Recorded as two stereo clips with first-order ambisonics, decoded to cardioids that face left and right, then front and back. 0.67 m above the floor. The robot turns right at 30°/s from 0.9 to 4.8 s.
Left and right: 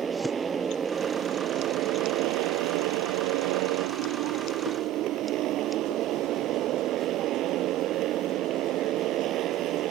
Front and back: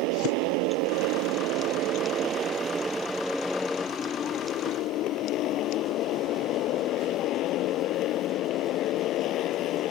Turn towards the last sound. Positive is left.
turn(degrees=-45)